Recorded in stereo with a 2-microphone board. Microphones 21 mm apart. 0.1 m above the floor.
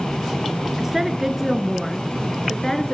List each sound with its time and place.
0.8 s a woman speaking: 20° right (ahead or behind), 1.3 m; by 2.9 s 30° left (ahead or behind), 1.4 m